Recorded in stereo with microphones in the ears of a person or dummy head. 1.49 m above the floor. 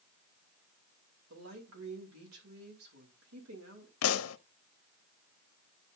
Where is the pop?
75° left (ahead or behind), 0.6 m.